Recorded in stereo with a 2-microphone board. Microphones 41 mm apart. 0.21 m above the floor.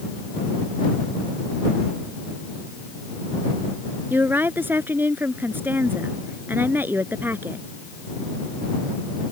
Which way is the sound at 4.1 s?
55° right (ahead or behind).